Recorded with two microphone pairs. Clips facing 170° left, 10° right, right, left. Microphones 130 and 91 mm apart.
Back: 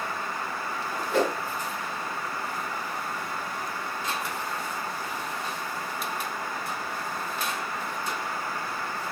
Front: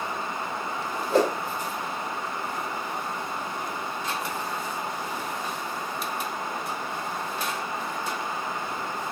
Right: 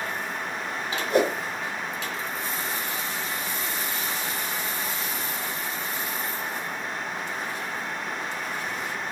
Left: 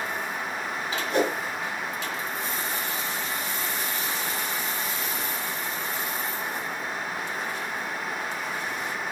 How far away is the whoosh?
About 2.5 m.